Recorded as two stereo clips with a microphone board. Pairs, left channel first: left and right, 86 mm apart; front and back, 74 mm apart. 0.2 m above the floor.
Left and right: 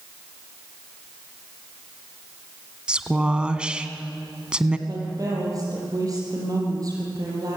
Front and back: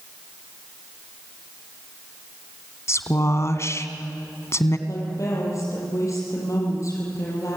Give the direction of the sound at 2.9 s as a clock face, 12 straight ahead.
1 o'clock.